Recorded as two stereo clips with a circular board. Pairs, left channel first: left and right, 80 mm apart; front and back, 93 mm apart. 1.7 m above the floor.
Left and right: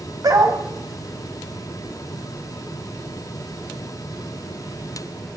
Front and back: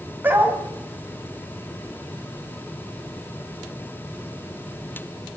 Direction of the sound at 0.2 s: 115° right.